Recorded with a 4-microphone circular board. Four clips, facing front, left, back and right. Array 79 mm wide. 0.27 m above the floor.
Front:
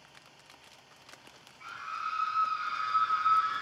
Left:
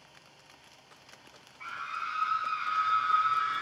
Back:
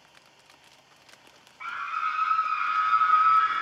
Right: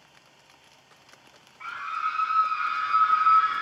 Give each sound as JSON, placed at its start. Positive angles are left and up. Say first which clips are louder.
{"t": 1.6, "sound": "a scream", "louder": "right 7 dB, back 7 dB", "azimuth_deg": -165, "distance_m": 2.5}